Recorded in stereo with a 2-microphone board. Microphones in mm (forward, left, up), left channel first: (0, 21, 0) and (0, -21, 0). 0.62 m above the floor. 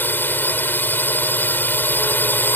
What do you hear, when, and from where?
0.0 s a drone: 55° left (ahead or behind)